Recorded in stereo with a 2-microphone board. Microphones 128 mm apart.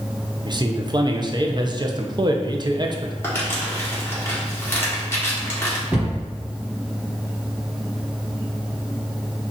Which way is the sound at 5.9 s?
10° right (ahead or behind).